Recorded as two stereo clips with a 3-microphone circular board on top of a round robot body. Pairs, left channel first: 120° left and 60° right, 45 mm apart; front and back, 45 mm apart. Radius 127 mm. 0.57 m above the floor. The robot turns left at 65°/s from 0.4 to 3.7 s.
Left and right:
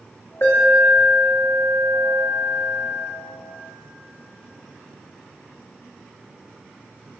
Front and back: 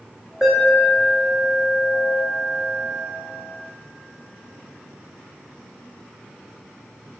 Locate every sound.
0.4 s an alarm: 95° left, 1.6 m; by 3.1 s 80° right, 1.6 m